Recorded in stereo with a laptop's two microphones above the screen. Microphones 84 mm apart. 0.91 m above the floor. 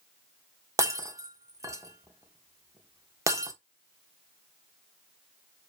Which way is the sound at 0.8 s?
40° right (ahead or behind).